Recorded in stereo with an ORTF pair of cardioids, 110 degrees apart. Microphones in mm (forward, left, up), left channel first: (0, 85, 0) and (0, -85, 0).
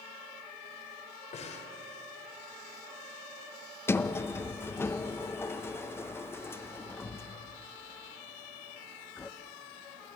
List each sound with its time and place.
1.3 s breathing: 45° left, 3.5 m
3.9 s a sliding door: 15° left, 0.8 m